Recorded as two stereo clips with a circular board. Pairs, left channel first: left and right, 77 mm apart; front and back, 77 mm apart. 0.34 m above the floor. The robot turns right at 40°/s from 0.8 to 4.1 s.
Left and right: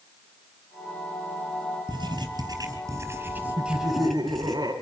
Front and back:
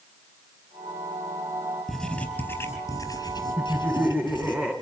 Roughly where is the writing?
Right.